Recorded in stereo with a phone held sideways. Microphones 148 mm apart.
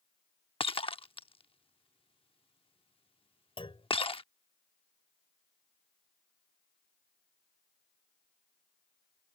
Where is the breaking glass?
40° left (ahead or behind).